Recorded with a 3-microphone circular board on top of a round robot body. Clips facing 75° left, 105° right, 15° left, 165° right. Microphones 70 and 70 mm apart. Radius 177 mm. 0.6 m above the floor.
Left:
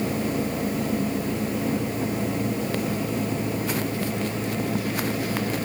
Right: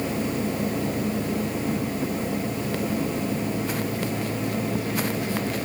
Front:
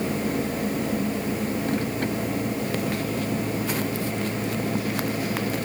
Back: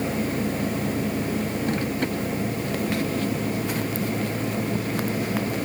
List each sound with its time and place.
Only background noise.